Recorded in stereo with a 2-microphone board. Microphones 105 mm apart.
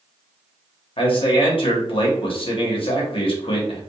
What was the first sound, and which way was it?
A man speaking, 60° left (ahead or behind).